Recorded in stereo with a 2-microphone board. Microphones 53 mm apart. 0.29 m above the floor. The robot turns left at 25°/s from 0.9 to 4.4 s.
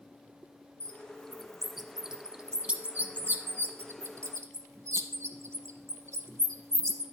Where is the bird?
20° left (ahead or behind), 0.7 m; by 7.0 s 65° right (ahead or behind), 0.7 m.